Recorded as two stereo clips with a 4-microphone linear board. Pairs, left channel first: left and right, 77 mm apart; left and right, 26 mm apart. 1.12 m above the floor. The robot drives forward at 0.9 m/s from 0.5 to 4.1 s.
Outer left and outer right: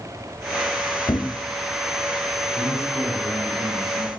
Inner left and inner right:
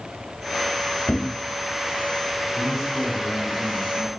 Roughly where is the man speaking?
Centre.